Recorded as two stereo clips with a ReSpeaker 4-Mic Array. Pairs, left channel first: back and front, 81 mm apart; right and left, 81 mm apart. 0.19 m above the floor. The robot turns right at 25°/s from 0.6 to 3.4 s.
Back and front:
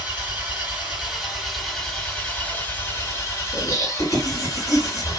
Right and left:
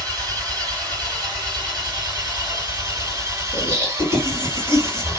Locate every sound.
0.0 s an engine running: 65° left, 2.5 m; by 5.2 s 135° left, 2.5 m
3.5 s laughter: 135° left, 2.5 m